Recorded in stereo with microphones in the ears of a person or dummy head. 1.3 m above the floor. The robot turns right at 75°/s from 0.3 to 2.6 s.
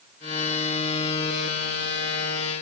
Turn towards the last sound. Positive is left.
No sound to turn to.